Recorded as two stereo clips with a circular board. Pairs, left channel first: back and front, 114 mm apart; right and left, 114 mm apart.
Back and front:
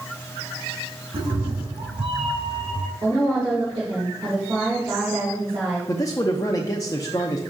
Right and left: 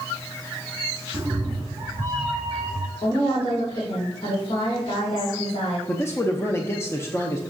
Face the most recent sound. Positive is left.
turn(degrees=-140)